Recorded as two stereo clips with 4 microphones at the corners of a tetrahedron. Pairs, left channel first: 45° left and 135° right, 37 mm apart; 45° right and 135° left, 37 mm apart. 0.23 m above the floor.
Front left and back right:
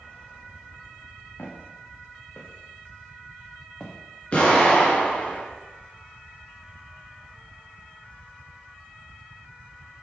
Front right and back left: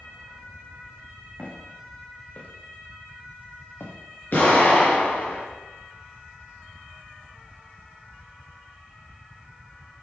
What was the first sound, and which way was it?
Footsteps, 15° left.